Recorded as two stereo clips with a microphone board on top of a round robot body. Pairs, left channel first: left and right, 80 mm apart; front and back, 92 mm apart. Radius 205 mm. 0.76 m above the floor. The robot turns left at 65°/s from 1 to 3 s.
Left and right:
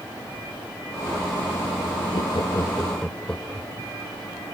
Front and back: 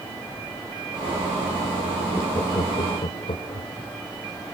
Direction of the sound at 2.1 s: 70° left.